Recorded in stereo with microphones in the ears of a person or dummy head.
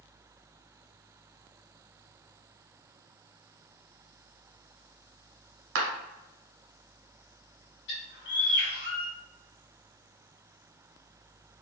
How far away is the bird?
About 1.2 m.